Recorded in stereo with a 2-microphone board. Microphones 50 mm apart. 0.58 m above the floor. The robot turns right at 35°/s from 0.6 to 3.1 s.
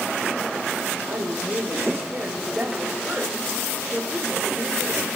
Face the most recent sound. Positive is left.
turn(degrees=-5)